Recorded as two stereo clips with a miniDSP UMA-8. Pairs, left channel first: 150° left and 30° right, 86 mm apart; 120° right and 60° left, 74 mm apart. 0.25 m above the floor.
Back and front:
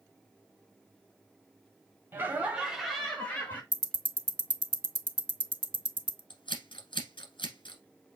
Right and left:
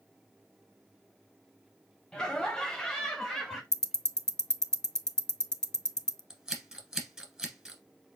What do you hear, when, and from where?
2.1 s laughter: 50° right, 1.4 m; by 3.6 s 150° left, 1.3 m
3.7 s ticking: 40° right, 0.5 m
6.3 s scissors: 140° left, 1.3 m